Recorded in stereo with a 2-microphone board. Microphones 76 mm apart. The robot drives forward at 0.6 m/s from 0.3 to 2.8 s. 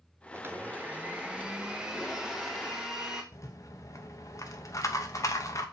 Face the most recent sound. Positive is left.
turn(degrees=40)  # may be behind; listen again after turning